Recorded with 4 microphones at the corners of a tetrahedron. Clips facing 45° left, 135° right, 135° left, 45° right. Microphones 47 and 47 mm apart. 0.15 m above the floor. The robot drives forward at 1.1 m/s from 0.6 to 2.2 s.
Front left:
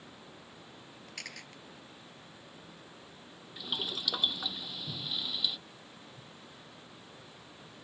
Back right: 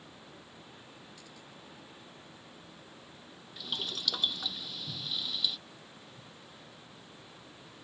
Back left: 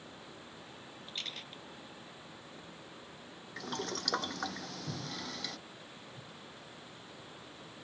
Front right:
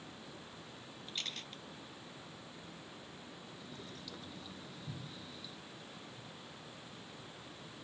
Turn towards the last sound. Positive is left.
turn(degrees=125)